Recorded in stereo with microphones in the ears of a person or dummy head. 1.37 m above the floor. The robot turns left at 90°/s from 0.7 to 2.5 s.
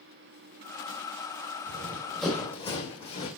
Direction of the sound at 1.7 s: 55° right (ahead or behind).